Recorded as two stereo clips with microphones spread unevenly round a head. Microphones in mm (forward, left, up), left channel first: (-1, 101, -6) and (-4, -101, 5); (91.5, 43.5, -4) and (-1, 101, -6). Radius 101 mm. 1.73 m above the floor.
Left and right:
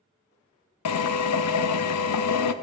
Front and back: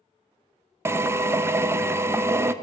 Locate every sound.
0.8 s a drill: 80° left, 0.6 m